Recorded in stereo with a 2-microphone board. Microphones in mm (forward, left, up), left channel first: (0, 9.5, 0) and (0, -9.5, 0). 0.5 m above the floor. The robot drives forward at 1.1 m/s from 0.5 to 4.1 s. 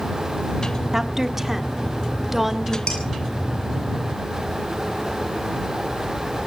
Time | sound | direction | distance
0.9 | a woman speaking | 20° right (ahead or behind) | 1.2 m
2.9 | dishes clattering | 55° left (ahead or behind) | 5.5 m